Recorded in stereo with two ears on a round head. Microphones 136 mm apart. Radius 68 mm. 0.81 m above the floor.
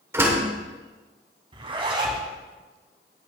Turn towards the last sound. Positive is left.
turn(degrees=-35)  # may be behind; listen again after turning